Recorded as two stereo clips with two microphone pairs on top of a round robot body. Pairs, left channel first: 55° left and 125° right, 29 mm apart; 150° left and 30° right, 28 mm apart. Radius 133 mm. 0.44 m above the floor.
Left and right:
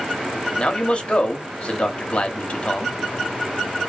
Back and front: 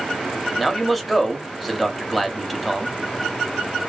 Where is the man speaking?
60° left, 1.1 m.